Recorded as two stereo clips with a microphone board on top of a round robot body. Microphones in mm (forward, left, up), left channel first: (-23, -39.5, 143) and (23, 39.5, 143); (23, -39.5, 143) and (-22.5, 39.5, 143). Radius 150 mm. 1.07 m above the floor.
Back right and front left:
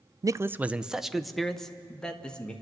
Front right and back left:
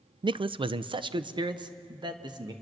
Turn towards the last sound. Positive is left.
turn(degrees=160)